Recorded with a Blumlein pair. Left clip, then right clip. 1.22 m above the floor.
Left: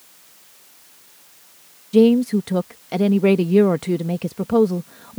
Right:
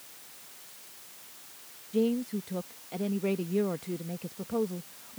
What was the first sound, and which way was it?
A woman speaking, 35° left.